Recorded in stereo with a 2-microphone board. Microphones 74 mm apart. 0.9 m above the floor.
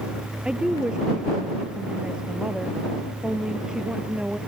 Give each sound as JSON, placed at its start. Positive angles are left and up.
{"t": 0.5, "sound": "a woman speaking", "side_deg": -10}